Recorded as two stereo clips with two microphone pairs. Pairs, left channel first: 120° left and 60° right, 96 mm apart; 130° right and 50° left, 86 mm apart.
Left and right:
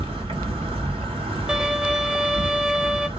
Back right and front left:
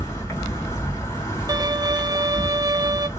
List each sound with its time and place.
0.0 s an insect: 75° right, 2.5 m
1.5 s a violin: 20° left, 0.6 m